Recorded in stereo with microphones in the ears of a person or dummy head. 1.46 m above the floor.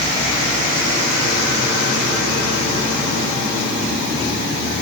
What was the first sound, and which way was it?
Only background noise.